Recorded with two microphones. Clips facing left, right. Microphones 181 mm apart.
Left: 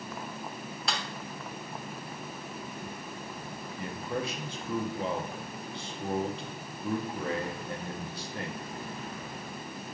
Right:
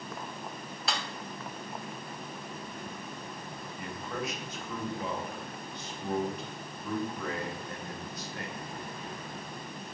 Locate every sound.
0.9 s a snare drum: centre (ahead or behind), 0.6 m
3.8 s a man speaking: 30° left (ahead or behind), 0.7 m